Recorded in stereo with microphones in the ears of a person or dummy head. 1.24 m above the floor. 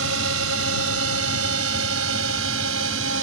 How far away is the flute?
No flute in this recording.